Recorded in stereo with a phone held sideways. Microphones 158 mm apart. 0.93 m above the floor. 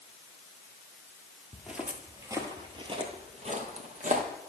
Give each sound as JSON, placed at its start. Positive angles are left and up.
{"t": 1.5, "sound": "footsteps", "side_deg": 0, "distance_m": 1.2}